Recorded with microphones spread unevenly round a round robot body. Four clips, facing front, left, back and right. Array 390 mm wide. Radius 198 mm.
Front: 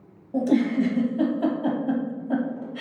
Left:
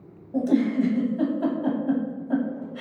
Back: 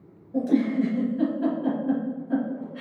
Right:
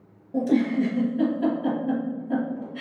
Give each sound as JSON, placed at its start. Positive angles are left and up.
{"t": 0.3, "sound": "a giggle", "azimuth_deg": 10, "distance_m": 0.7}